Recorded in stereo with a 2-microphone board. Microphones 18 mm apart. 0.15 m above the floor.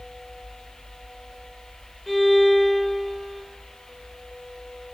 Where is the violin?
15° left (ahead or behind), 4 m.